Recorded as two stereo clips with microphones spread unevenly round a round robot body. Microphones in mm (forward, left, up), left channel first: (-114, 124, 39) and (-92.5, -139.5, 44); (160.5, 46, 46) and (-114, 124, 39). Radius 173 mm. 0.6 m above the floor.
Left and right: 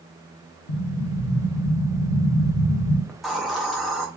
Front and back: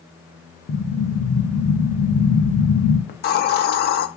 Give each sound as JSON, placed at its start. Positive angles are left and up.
{"t": 0.7, "sound": "an explosion", "azimuth_deg": 55, "distance_m": 0.5}
{"t": 3.1, "sound": "a hiss", "azimuth_deg": 5, "distance_m": 0.6}